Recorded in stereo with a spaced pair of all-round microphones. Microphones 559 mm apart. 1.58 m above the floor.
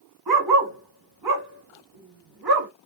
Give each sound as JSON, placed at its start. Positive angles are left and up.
{"t": 0.3, "sound": "a dog barking", "side_deg": -40, "distance_m": 1.3}